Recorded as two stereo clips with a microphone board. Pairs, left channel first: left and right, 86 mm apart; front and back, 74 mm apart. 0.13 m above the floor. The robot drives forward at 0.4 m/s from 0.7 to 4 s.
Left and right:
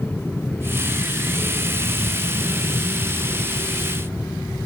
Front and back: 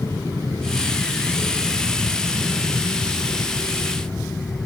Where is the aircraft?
25° left.